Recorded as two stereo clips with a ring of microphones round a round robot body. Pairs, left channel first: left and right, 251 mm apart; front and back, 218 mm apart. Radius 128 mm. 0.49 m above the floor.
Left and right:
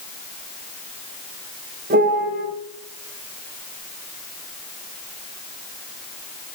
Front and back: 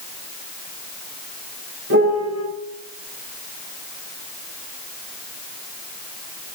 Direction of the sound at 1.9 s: 145° right.